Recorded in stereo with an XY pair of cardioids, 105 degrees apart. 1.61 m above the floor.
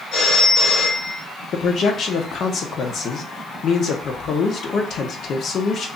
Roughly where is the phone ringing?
Ahead left.